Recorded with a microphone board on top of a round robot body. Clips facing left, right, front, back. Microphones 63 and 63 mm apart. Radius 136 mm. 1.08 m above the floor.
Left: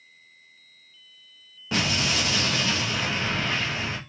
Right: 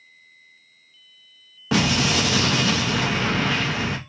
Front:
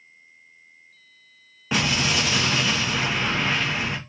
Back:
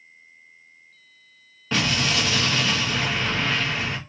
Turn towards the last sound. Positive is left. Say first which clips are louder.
# right 5 dB, even
turn(degrees=-75)